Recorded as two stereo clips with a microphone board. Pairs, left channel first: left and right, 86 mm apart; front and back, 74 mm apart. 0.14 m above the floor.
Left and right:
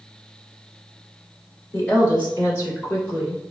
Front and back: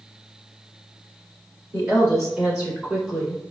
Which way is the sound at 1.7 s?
135° left.